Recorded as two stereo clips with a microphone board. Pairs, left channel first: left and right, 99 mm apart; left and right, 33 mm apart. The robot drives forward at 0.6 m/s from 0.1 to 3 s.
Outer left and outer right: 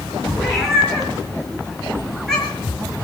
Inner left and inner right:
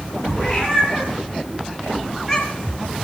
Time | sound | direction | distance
0.4 | a cat meowing | centre (ahead or behind) | 4.5 m